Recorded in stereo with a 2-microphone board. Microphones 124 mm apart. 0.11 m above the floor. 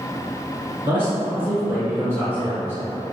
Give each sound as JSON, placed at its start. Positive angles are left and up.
{"t": 0.8, "sound": "a man speaking", "side_deg": -20, "distance_m": 1.3}